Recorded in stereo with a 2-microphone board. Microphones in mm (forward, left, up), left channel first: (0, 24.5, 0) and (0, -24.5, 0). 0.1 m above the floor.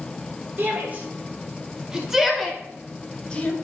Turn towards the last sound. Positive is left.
turn(degrees=25)  # may be behind; listen again after turning